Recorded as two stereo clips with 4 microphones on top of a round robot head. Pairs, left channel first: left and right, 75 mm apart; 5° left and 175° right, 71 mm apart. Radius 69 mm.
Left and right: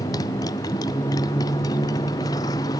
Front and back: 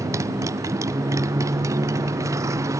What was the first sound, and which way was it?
A motorcycle, 140° left.